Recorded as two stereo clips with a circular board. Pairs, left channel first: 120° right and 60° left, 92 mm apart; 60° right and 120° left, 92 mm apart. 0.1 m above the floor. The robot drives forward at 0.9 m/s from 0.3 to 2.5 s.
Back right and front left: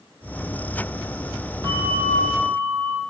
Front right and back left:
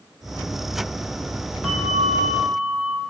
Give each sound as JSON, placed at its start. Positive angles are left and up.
{"t": 1.6, "sound": "a bell", "azimuth_deg": 30, "distance_m": 2.5}